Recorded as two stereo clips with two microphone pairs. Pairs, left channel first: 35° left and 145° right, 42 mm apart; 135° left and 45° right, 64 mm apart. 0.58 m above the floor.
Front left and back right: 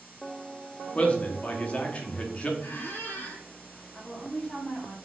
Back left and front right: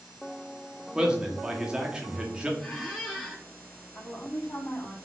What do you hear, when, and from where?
0.9 s a man speaking: 10° left, 0.6 m
2.6 s a squeak: 40° left, 0.7 m
4.0 s a woman speaking: 95° left, 1.1 m